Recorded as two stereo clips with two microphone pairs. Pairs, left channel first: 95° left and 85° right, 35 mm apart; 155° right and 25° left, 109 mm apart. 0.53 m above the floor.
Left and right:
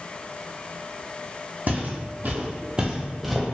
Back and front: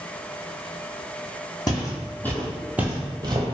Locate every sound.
1.7 s footsteps: 110° right, 1.0 m; by 3.4 s 10° left, 0.8 m